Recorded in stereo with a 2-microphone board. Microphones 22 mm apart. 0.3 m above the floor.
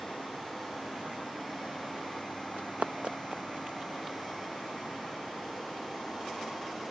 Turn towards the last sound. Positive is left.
turn(degrees=-20)  # may be behind; listen again after turning